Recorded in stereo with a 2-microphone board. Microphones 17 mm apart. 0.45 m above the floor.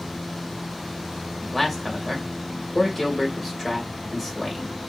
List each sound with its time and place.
1.4 s a man speaking: centre (ahead or behind), 1.2 m